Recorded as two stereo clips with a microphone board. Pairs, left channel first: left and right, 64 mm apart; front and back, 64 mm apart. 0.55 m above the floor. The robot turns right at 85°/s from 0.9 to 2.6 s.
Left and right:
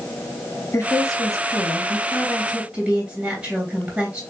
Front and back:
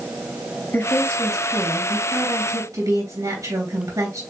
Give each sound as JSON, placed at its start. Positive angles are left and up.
{"t": 0.7, "sound": "a woman speaking", "azimuth_deg": 50, "distance_m": 3.0}